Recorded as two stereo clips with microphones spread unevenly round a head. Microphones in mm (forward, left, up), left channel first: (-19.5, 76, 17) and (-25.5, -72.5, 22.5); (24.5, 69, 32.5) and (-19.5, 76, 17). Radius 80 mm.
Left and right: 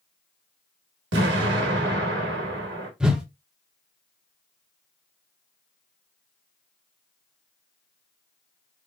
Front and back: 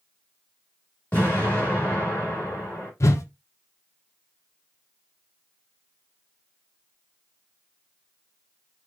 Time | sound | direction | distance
1.1 | an explosion | 80° right | 1.1 m
3.0 | a whoosh | 5° right | 0.7 m